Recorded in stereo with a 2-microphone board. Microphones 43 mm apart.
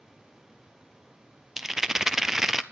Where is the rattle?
10° right (ahead or behind), 0.5 m.